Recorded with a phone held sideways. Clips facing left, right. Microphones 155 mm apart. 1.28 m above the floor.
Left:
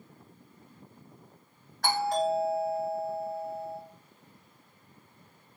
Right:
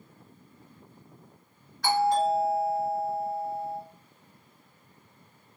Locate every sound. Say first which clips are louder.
1.8 s a doorbell: right 4 dB; 50° left (ahead or behind), 1.8 m